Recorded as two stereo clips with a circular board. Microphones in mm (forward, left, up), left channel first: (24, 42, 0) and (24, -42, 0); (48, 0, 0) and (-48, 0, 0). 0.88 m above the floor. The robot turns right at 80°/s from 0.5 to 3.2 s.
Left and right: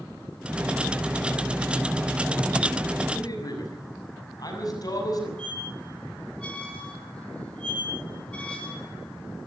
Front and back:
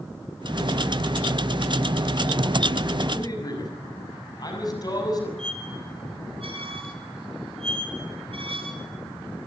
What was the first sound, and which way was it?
A man speaking, 40° left.